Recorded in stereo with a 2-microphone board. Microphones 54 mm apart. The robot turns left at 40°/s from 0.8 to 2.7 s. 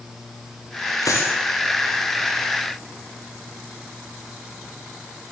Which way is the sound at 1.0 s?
85° left.